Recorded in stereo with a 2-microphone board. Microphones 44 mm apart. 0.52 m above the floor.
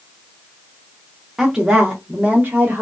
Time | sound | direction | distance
1.4 | a woman speaking | 10° right (ahead or behind) | 0.8 m